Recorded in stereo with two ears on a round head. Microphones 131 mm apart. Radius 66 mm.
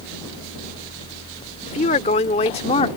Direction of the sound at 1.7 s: 45° left (ahead or behind).